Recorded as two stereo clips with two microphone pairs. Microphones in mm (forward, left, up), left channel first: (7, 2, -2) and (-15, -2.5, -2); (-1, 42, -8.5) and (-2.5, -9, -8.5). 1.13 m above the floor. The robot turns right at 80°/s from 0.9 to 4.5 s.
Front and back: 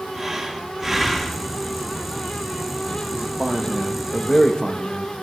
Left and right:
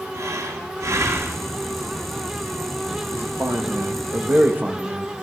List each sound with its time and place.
0.1 s breathing: 85° right, 1.4 m; by 1.5 s 35° right, 1.4 m
3.1 s a man speaking: 155° right, 1.8 m; by 5.1 s 40° right, 1.8 m